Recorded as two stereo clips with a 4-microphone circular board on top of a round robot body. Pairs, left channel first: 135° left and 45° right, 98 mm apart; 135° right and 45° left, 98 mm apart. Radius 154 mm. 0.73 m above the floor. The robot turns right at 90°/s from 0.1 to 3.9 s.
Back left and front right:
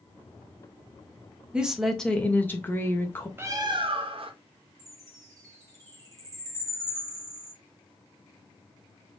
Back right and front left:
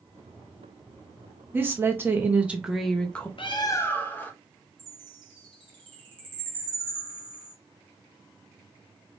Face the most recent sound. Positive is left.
turn(degrees=10)